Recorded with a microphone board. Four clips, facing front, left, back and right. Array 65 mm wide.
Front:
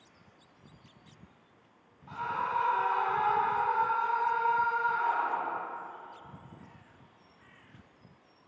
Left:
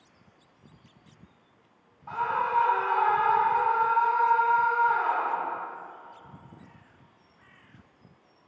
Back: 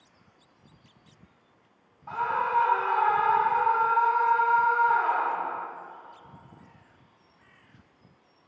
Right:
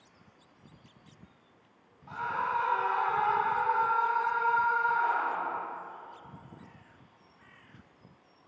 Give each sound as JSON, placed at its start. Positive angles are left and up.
{"t": 2.1, "sound": "a scream", "azimuth_deg": 150, "distance_m": 3.0}